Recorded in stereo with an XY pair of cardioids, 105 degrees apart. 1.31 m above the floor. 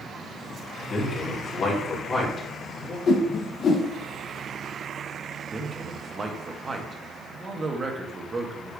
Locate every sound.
0.9 s a man speaking: 40° left, 2.5 m
3.1 s a whoosh: 50° left, 1.0 m
5.5 s a man speaking: 30° right, 1.6 m